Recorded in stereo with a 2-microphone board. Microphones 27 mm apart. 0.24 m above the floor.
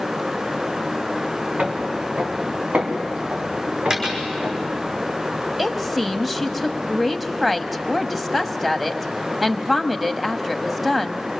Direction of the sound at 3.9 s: 30° right (ahead or behind).